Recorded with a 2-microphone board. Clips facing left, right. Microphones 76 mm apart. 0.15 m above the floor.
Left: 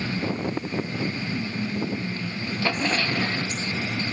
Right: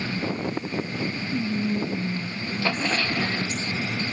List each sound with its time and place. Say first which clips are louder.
1.3 s whispering: right 3 dB; 30° right (ahead or behind), 1.2 m